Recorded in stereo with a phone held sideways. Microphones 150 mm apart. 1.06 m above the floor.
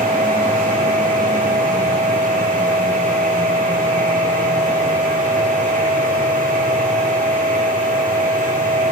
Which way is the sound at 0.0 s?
70° right (ahead or behind).